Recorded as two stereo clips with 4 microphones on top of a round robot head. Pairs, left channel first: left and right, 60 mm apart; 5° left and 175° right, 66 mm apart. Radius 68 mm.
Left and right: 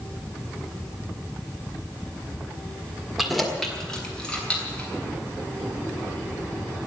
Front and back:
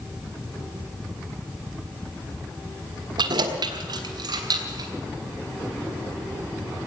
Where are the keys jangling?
Straight behind, 1.6 m; by 4.9 s 165° left, 4 m.